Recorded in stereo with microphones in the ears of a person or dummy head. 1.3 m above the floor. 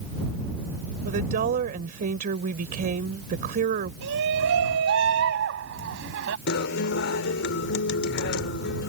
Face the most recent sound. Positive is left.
turn(degrees=55)  # may be behind; listen again after turning